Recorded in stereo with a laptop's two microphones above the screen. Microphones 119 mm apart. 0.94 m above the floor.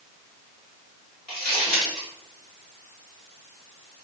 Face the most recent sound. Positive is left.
turn(degrees=5)  # may be behind; listen again after turning